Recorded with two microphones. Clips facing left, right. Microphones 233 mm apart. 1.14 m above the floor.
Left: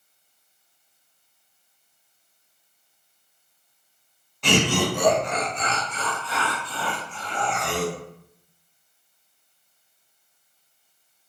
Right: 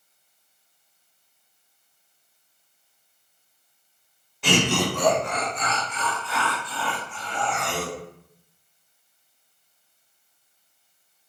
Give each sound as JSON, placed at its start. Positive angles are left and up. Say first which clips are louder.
{"t": 4.4, "sound": "laughter", "louder": "left 1 dB", "side_deg": -5, "distance_m": 0.7}